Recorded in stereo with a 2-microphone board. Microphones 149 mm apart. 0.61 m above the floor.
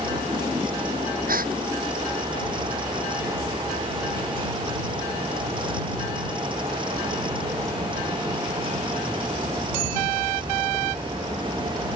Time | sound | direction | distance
1.3 | a gasp | 75° right (ahead or behind) | ?